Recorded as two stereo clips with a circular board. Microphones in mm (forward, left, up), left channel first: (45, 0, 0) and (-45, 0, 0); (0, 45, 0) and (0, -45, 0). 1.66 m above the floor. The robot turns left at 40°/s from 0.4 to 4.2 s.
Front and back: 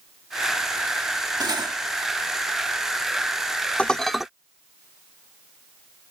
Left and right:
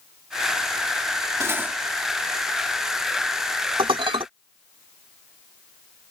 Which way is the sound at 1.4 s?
145° right.